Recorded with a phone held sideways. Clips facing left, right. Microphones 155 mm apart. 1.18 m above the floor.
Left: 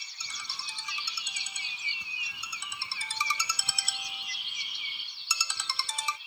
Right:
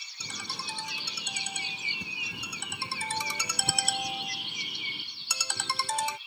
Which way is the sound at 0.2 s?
50° right (ahead or behind).